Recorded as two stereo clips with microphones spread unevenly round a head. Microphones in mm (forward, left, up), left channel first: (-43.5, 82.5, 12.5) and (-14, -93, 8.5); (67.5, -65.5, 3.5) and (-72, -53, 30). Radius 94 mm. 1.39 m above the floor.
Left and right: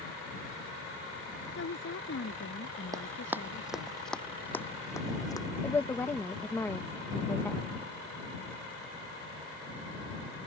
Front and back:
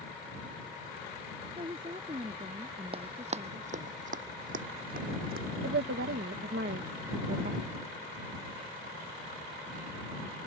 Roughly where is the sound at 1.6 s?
Left.